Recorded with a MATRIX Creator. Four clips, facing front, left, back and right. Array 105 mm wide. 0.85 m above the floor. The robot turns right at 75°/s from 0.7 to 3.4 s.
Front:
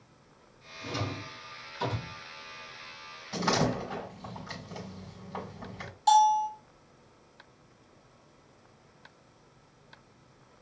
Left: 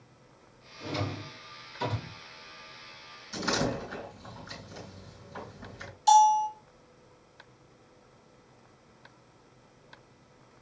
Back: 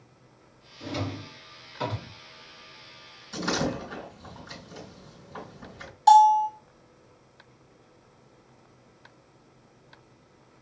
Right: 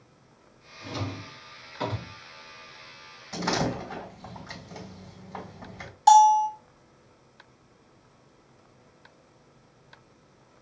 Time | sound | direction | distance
0.8 | a drawer | 145° left | 2.5 m
3.3 | a door slam | 55° right | 3 m
6.1 | a bell | 115° right | 0.8 m